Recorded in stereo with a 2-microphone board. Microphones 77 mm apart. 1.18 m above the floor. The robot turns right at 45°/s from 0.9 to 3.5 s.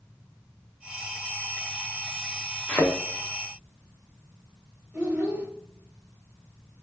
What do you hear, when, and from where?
2.7 s a thud: 15° left (ahead or behind), 0.8 m; by 2.9 s 20° left (ahead or behind), 0.8 m
4.9 s a child speaking: 15° right (ahead or behind), 1.3 m